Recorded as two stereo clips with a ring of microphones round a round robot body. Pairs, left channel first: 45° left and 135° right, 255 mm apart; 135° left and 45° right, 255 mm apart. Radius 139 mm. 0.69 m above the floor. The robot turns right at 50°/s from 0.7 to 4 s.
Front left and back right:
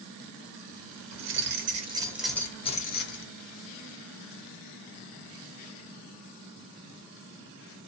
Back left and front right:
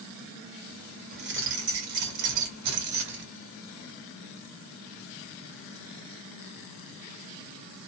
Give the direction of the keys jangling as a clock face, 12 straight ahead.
3 o'clock.